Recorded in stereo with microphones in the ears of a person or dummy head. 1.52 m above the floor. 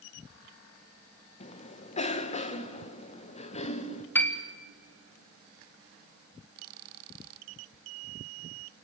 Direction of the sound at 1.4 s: 35° left (ahead or behind).